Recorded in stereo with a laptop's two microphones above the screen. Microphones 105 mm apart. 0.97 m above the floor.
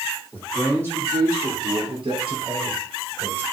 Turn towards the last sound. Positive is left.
turn(degrees=-75)  # may be behind; listen again after turning